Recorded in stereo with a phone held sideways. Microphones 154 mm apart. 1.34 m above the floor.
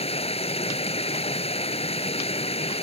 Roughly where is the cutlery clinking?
I don't hear cutlery clinking.